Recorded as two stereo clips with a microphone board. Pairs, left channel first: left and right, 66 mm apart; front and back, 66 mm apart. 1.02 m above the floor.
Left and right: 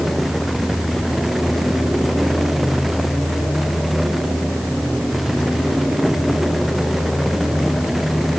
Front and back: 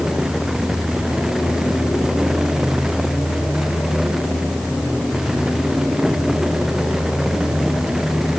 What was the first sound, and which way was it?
Only background noise.